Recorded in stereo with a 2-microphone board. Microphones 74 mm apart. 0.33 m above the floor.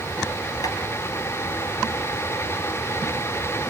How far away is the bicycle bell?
No bicycle bell in this recording.